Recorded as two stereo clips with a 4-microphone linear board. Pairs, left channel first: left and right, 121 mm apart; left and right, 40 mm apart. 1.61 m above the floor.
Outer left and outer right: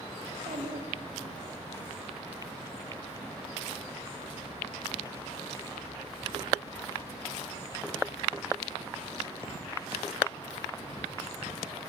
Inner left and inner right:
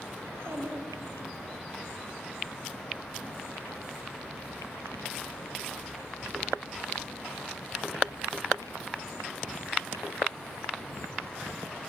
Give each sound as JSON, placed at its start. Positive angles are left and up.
{"t": 0.2, "sound": "a child speaking", "side_deg": -80, "distance_m": 4.0}